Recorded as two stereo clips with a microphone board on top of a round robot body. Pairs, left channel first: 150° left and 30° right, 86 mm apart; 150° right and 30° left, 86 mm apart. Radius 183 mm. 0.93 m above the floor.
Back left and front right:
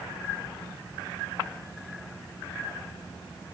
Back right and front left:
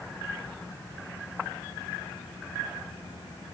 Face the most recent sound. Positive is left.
No sound to turn to.